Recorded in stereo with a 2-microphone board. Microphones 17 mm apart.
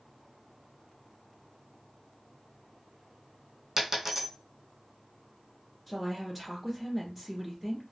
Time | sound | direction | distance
3.8 | a dropped coin | 30° right (ahead or behind) | 1.6 m
5.9 | a woman speaking | 10° right (ahead or behind) | 1.7 m